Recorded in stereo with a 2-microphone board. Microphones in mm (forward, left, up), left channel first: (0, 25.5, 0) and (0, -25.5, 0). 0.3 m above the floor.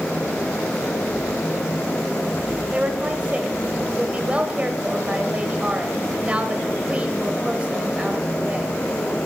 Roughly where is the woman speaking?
Right.